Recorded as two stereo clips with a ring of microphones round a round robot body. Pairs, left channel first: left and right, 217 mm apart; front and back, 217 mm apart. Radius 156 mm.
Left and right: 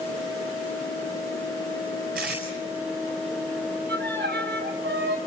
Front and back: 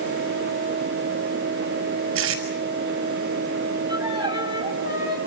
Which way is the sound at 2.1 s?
150° right.